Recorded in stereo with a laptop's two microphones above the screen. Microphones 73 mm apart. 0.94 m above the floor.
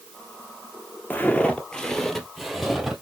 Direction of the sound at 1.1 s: 25° left (ahead or behind).